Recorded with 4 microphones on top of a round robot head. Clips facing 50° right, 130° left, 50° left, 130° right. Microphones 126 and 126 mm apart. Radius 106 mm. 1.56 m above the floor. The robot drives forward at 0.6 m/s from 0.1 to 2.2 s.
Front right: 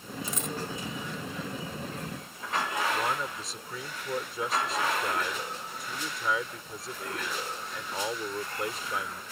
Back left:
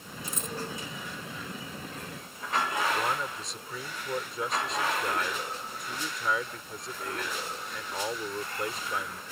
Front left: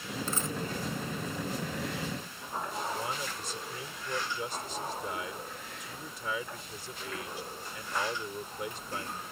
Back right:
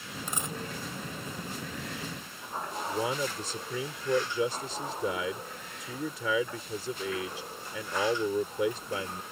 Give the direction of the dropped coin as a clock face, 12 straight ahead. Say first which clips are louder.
Front right 1 dB, front left 1 dB; 2 o'clock.